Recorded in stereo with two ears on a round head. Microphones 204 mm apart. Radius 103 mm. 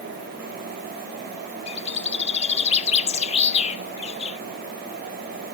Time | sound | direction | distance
1.7 | a bird | 25° left (ahead or behind) | 0.7 m